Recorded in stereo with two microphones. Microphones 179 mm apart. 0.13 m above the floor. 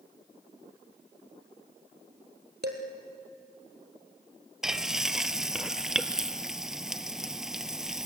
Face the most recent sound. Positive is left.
turn(degrees=-5)  # may be behind; listen again after turning